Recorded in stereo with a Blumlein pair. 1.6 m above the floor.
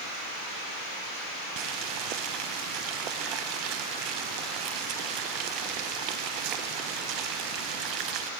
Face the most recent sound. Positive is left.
turn(degrees=-40)